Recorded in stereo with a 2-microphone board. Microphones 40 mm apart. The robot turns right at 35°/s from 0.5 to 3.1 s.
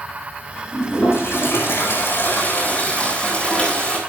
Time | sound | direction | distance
0.7 | a toilet flushing | 70° left | 9.5 m